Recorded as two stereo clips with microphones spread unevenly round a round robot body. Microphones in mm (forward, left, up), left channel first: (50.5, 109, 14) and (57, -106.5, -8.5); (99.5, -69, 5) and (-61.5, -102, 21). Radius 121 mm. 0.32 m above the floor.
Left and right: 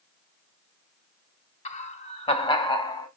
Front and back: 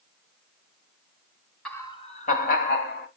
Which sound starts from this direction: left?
Laughter, at 1.6 s.